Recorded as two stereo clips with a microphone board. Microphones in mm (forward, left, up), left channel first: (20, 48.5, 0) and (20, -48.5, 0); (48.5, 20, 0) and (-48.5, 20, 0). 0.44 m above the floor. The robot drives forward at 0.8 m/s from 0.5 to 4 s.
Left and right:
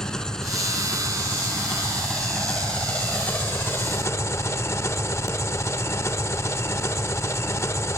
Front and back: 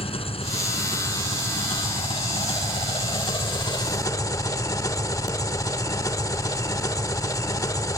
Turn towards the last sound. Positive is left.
turn(degrees=40)